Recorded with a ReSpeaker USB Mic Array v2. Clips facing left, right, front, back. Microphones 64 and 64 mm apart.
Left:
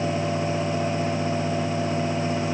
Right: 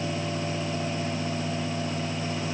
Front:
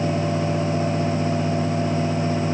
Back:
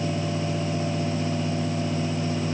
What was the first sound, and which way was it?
Only background noise.